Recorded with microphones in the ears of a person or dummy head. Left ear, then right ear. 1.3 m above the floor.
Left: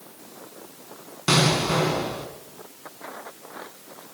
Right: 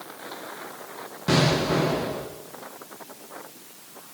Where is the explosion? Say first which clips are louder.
Left 1 dB; 80° left, 6.5 m.